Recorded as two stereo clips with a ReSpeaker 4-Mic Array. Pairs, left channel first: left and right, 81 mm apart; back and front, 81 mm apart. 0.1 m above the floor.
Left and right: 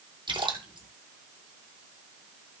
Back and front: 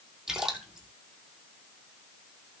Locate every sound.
0.3 s a splash: 85° right, 2.5 m